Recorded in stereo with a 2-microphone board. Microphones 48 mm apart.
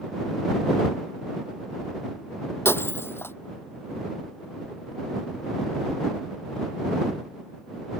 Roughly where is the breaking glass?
Left.